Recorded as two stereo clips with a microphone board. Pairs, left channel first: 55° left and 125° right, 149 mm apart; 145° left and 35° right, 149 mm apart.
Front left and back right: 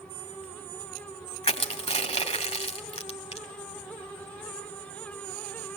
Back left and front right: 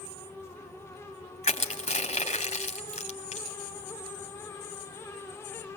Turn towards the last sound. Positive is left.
turn(degrees=105)